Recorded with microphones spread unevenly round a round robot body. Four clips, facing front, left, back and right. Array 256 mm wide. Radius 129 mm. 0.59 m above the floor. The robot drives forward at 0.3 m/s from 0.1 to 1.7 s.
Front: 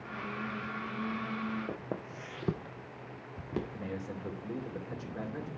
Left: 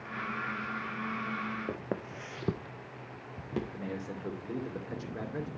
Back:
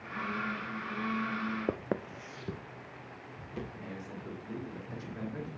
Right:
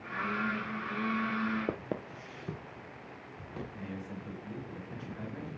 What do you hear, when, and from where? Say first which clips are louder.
1.7 s footsteps: even, back 5 dB; 170° right, 0.7 m; by 3.6 s 50° left, 2.5 m
3.7 s a man speaking: left 3 dB, front 4 dB; 60° left, 2.5 m